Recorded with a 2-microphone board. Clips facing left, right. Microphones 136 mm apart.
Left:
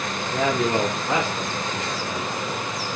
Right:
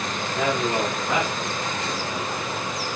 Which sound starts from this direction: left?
A man speaking, at 0.3 s.